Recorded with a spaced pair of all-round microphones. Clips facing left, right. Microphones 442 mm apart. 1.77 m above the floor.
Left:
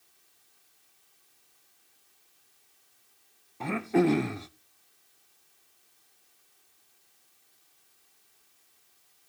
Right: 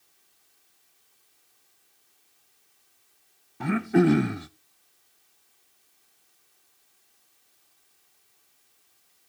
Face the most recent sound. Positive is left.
turn(degrees=-30)  # may be behind; listen again after turning